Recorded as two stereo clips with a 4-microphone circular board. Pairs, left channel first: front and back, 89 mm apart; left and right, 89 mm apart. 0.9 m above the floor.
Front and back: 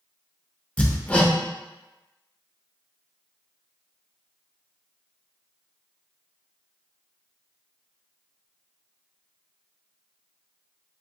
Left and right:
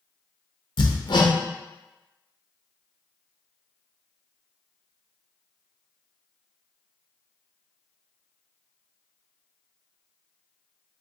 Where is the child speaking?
No child speaking in this recording.